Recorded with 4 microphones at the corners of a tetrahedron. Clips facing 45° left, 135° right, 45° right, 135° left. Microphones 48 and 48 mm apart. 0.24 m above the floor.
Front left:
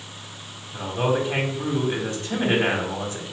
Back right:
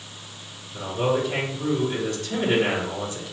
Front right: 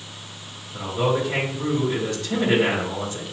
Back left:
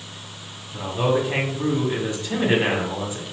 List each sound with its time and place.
0.7 s a man speaking: 80° left, 1.6 m